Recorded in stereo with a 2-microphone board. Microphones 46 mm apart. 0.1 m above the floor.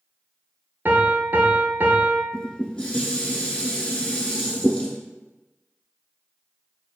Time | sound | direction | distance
0.8 | a piano | 50° right (ahead or behind) | 0.6 m
2.3 | dishes clattering | 20° left (ahead or behind) | 0.8 m